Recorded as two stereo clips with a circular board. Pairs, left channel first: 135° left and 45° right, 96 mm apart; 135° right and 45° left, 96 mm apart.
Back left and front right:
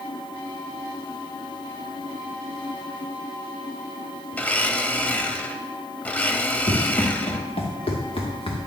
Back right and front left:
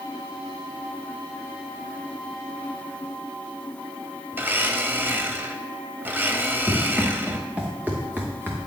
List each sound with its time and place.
4.3 s a blender: 80° left, 0.6 m
6.7 s running footsteps: 130° left, 2.5 m; by 8.7 s 105° left, 1.7 m